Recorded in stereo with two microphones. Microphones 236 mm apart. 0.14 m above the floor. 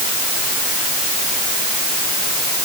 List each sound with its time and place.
Only background noise.